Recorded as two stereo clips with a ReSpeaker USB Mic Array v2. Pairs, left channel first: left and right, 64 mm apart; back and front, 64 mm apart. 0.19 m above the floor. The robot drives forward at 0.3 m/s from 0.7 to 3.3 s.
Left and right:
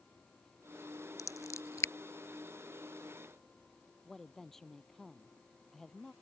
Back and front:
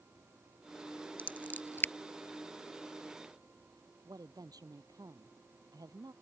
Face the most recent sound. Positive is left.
turn(degrees=5)